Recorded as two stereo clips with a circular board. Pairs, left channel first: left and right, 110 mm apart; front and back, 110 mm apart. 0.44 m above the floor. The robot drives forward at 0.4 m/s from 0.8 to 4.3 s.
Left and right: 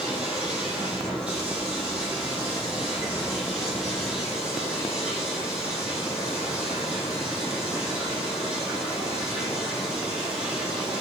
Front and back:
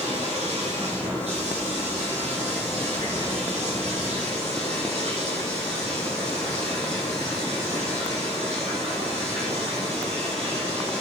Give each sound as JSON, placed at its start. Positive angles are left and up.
{"t": 0.0, "sound": "running water", "azimuth_deg": -170, "distance_m": 8.0}